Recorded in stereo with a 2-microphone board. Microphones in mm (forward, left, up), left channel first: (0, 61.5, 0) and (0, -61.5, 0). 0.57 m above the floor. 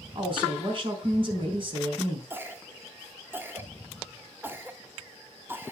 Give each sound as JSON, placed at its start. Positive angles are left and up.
{"t": 0.1, "sound": "a woman speaking", "side_deg": -45, "distance_m": 4.0}
{"t": 2.3, "sound": "a cough", "side_deg": -20, "distance_m": 1.1}